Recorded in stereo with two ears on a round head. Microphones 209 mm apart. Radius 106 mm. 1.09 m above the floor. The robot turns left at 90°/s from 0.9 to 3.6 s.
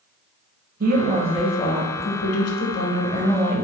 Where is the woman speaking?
135° right, 0.7 m; by 3.6 s 20° right, 0.7 m.